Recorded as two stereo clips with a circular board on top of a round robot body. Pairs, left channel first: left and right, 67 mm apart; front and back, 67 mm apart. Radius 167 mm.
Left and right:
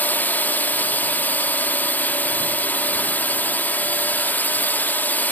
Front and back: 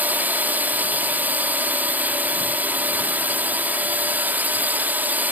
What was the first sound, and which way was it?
A drone, 135° left.